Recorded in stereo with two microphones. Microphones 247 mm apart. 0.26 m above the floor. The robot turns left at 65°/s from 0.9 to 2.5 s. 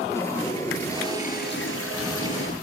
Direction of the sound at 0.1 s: 170° left.